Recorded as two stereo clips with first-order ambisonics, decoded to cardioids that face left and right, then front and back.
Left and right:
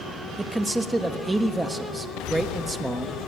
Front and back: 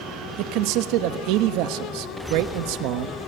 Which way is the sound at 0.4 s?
170° right.